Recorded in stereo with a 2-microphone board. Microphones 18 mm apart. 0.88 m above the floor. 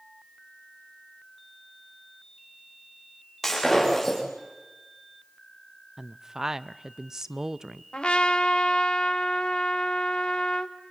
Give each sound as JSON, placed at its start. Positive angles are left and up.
{"t": 3.4, "sound": "breaking glass", "side_deg": 5, "distance_m": 10.0}
{"t": 6.0, "sound": "a woman speaking", "side_deg": -30, "distance_m": 0.5}
{"t": 7.9, "sound": "a trumpet", "side_deg": 80, "distance_m": 1.4}